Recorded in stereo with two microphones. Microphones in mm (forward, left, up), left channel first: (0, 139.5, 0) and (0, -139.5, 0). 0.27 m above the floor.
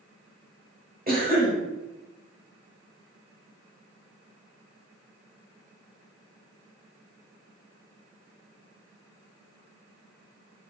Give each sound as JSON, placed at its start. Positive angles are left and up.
{"t": 1.1, "sound": "a cough", "side_deg": -30, "distance_m": 1.0}